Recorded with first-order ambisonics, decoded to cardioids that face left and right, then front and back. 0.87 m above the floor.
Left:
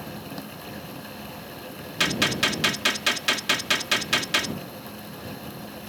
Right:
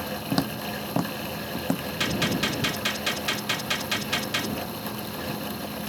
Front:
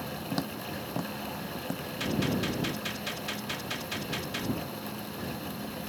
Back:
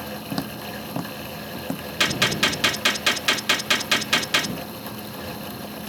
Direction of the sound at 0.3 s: 110° right.